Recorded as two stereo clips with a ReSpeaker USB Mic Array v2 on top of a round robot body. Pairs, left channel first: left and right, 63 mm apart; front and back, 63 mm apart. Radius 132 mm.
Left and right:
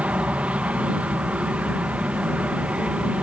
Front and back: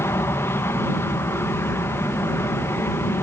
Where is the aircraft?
25° right.